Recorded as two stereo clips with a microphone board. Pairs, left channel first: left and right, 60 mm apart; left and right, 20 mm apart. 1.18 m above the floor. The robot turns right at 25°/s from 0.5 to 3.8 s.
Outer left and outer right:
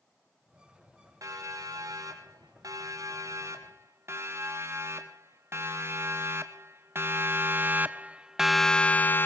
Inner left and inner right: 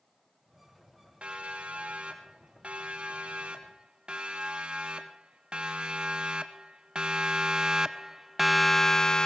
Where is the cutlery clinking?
I don't hear cutlery clinking.